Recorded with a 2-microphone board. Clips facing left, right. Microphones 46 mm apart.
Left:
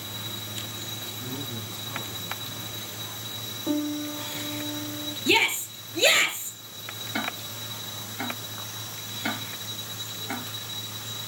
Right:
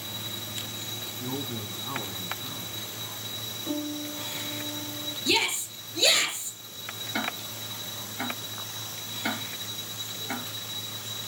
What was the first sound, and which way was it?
A man speaking, 45° right (ahead or behind).